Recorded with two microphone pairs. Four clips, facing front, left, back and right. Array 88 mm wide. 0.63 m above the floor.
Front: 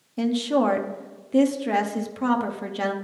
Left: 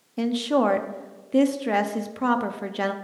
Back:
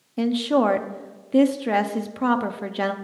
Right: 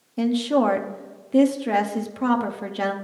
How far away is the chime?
I don't hear a chime.